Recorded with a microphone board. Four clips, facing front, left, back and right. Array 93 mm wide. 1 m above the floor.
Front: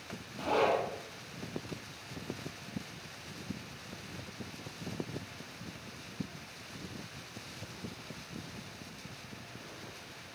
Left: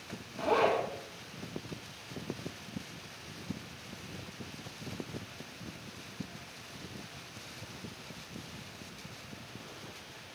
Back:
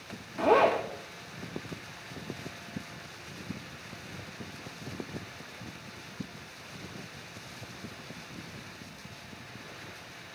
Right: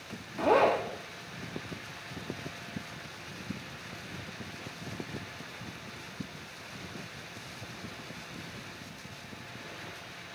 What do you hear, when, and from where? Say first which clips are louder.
0.4 s a zipper: right 4 dB, back 6 dB; 150° right, 0.9 m